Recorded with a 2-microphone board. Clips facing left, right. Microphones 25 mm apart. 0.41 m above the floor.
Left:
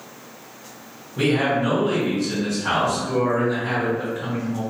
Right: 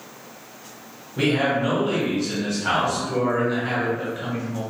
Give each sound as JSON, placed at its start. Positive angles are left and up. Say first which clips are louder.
{"t": 1.2, "sound": "a man speaking", "louder": "left 1 dB", "side_deg": -15, "distance_m": 1.5}